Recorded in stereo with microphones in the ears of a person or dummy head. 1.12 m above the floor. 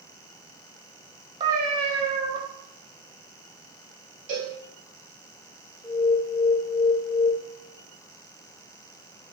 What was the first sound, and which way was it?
A cat meowing, 30° right (ahead or behind).